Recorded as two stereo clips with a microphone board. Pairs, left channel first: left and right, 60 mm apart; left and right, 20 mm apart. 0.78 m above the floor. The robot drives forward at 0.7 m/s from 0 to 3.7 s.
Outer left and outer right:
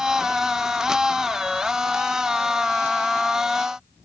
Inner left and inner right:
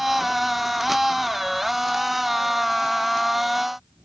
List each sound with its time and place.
Only background noise.